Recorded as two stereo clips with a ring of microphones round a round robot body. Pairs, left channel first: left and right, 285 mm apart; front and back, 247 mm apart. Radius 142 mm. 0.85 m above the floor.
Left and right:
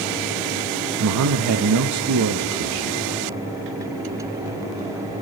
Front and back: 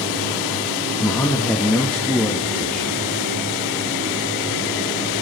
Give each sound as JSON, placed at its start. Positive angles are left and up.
{"t": 1.0, "sound": "a man speaking", "azimuth_deg": -85, "distance_m": 0.8}